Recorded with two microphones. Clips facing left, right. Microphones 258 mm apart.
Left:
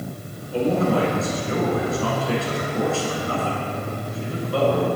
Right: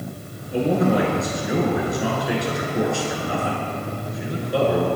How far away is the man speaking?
About 1.3 m.